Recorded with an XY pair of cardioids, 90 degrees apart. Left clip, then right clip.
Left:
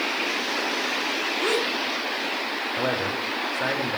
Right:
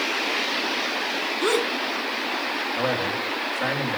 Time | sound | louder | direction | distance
1.4 | a gasp | right 2 dB | 25° right | 2.5 m
2.8 | a man speaking | even | 30° left | 5 m